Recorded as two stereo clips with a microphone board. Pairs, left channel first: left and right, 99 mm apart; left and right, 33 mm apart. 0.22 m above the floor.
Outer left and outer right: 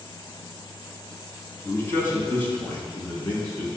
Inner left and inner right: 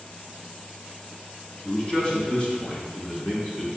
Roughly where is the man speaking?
Left.